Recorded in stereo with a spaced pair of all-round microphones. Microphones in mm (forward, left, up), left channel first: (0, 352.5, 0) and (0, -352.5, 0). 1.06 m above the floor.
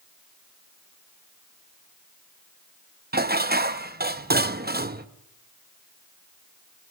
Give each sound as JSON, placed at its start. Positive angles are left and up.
{"t": 3.1, "sound": "dishes clattering", "side_deg": -15, "distance_m": 0.8}